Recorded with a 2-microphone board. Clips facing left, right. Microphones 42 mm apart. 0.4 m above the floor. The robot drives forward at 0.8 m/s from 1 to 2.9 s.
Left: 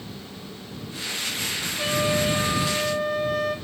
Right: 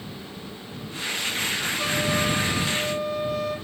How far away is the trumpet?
About 7.5 m.